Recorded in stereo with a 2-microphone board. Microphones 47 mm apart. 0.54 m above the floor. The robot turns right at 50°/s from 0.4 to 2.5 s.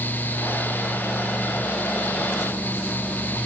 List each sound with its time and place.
Only background noise.